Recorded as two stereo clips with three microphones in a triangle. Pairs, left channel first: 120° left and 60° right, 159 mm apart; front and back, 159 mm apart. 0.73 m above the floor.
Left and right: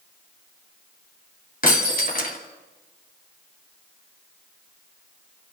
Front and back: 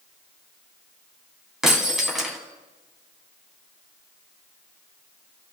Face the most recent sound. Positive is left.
turn(degrees=95)